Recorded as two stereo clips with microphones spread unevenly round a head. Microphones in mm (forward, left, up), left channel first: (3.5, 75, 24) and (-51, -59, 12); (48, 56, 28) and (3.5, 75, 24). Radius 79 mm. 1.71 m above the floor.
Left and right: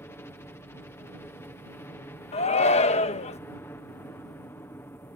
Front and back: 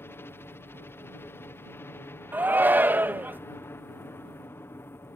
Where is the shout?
110° left.